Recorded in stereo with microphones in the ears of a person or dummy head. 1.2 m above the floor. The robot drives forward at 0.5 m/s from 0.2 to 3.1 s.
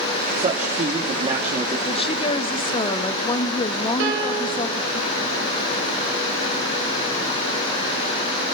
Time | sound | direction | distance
0.3 | a man speaking | 40° right (ahead or behind) | 2.5 m
1.9 | a woman speaking | 30° left (ahead or behind) | 1.2 m
4.0 | a piano | 65° right (ahead or behind) | 5.5 m